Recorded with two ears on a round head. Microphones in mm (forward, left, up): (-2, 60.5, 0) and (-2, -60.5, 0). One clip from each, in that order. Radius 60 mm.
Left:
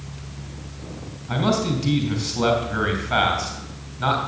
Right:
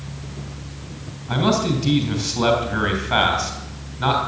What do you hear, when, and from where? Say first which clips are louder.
1.3 s a man speaking: right 2 dB; 5° right (ahead or behind), 3.5 m